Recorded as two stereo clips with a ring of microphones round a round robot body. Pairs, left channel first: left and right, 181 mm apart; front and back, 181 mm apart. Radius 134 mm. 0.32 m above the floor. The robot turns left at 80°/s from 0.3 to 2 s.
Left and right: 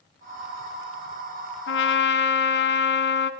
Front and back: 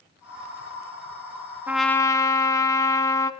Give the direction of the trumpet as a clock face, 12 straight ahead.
9 o'clock.